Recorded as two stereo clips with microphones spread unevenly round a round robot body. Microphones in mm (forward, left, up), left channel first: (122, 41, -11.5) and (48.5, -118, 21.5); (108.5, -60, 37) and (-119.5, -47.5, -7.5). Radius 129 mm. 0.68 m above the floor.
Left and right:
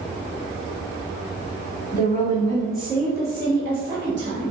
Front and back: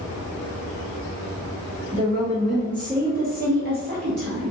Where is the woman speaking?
125° left, 1.5 m; by 4.5 s 165° right, 1.6 m.